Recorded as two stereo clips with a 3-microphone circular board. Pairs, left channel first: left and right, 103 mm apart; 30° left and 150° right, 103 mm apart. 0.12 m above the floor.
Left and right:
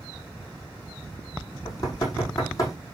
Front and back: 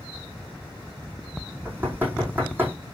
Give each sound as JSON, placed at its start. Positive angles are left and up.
{"t": 1.6, "sound": "knocking", "azimuth_deg": 140, "distance_m": 5.5}